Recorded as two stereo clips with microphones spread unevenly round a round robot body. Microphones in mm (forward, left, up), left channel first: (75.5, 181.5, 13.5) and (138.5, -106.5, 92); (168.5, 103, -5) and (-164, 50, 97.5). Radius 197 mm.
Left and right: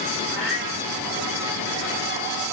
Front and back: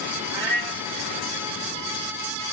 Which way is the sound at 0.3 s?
140° right.